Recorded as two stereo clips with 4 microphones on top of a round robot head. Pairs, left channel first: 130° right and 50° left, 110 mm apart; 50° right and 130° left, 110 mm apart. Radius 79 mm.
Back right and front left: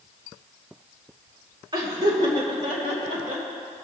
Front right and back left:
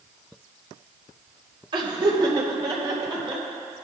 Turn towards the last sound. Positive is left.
turn(degrees=80)